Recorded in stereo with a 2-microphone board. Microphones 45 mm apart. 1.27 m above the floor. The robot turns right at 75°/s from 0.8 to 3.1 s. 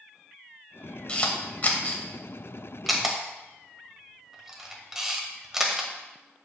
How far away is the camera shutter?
About 1.2 m.